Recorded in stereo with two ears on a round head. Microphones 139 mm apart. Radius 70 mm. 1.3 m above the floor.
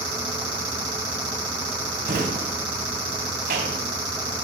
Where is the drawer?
60° right (ahead or behind), 3.5 m.